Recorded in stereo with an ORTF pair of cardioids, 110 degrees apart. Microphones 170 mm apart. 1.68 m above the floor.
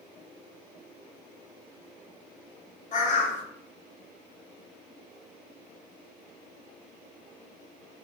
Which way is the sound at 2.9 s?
50° left.